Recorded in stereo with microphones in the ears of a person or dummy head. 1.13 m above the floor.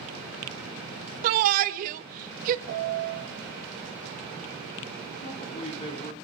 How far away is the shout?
About 1.2 m.